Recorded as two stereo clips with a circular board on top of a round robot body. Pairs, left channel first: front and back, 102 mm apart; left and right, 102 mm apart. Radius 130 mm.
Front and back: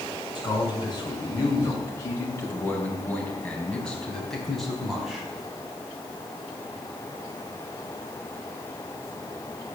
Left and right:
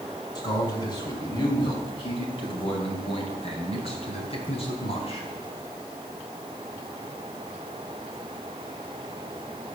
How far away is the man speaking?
About 5.5 m.